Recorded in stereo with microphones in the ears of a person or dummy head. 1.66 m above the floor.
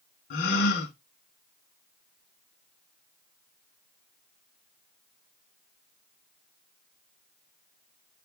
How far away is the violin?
I don't hear a violin.